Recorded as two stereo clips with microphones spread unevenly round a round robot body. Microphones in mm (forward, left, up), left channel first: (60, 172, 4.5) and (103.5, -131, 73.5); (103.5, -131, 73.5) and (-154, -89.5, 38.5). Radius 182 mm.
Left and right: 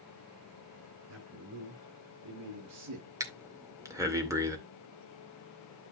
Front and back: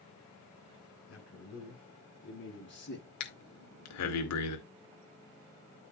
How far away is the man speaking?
About 8.5 m.